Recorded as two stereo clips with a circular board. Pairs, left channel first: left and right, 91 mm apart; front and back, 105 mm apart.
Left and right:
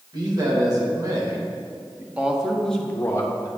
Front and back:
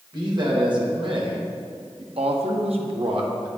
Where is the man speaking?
130° right, 2 m; by 3.5 s 135° left, 0.9 m.